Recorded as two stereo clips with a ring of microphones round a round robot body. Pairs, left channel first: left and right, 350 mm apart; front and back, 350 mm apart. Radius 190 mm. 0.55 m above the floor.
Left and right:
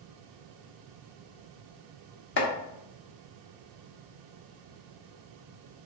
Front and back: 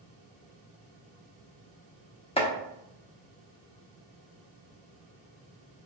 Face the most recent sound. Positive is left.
turn(degrees=65)